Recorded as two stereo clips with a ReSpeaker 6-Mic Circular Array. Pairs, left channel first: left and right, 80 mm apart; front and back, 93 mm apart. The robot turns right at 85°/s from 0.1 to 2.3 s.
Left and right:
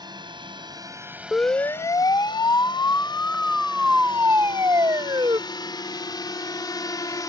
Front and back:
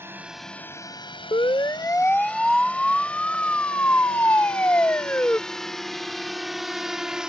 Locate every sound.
0.0 s a drone: 115° right; by 7.3 s 100° left
1.3 s a siren: 10° left; by 5.4 s 65° right